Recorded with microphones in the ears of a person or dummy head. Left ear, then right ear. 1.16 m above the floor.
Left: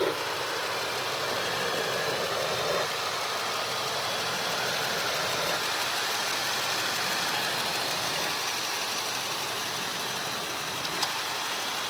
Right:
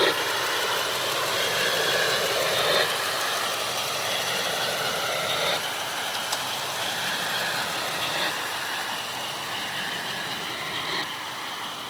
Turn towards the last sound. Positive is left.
turn(degrees=-75)  # may be behind; listen again after turning